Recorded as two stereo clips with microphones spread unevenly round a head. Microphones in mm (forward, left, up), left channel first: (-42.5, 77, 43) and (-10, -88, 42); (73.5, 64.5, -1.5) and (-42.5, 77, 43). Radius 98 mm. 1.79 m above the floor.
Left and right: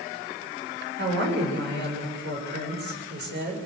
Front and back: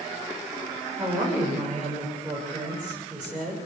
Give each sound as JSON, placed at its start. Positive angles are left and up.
{"t": 1.0, "sound": "a woman speaking", "azimuth_deg": -105, "distance_m": 7.5}